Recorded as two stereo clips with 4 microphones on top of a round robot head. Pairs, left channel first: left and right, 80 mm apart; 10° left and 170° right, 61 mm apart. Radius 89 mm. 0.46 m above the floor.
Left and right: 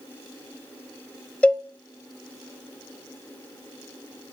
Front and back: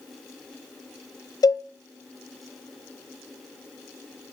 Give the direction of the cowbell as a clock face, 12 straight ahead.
12 o'clock.